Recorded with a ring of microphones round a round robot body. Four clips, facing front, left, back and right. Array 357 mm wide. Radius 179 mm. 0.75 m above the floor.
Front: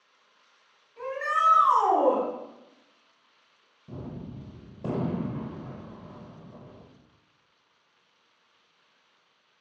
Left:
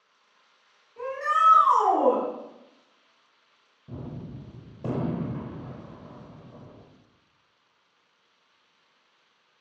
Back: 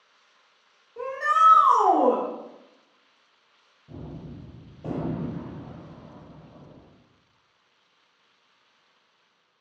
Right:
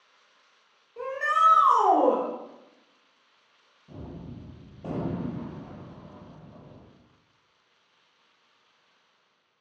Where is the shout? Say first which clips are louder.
Even, back 5 dB; 155° right, 2 m.